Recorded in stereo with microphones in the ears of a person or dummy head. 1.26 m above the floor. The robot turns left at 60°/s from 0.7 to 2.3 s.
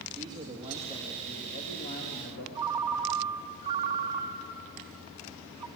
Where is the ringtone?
15° right (ahead or behind), 0.5 m.